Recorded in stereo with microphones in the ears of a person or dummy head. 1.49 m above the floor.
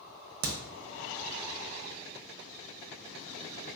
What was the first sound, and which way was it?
A crack, 50° right (ahead or behind).